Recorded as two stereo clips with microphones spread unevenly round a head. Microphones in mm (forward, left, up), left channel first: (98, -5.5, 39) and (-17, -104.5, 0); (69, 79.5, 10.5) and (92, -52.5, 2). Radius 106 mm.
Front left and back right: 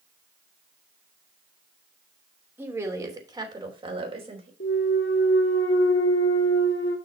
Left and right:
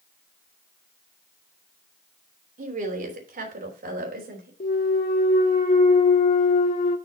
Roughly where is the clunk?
Left.